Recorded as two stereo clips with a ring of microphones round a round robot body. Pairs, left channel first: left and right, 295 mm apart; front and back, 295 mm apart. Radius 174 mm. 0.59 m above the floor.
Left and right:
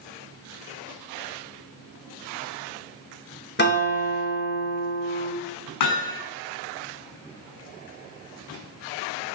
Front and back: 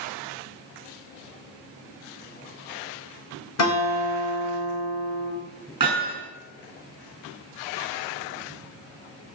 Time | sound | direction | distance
3.6 | a guitar | 35° left | 3 m
5.8 | hammering | 105° left | 5 m